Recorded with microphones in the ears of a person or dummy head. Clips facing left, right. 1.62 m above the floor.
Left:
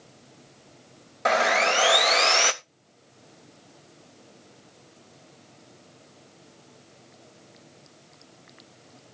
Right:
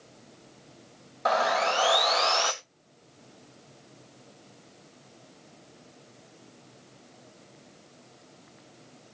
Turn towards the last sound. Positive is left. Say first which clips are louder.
# left 2 dB
turn(degrees=30)  # may be behind; listen again after turning